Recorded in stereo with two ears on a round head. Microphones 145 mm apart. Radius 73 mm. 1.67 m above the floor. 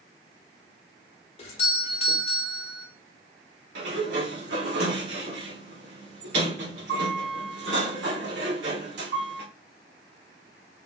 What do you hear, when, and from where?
1.4 s a doorbell: 40° left (ahead or behind), 0.9 m
3.8 s a sliding door: 75° right (ahead or behind), 1.2 m